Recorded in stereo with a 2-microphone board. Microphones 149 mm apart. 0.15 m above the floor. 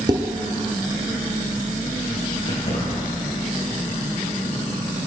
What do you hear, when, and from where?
0.1 s dishes clattering: 30° right (ahead or behind), 1.5 m
2.5 s keys jangling: 55° left (ahead or behind), 4 m